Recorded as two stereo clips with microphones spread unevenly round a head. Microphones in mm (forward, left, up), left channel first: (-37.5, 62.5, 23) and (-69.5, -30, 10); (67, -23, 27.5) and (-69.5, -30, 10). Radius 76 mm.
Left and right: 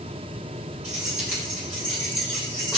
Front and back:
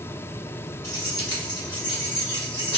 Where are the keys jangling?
60° right, 2 m; by 2.8 s 45° right, 3 m.